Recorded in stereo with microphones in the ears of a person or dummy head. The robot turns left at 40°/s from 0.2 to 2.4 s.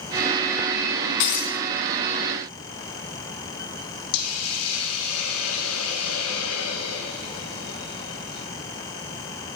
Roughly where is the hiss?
Left.